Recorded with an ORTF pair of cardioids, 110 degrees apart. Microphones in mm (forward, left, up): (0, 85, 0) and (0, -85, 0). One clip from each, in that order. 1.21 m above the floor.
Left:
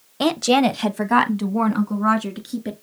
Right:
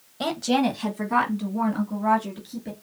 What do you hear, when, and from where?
0.2 s a woman speaking: 35° left, 0.6 m; by 2.7 s 60° left, 2 m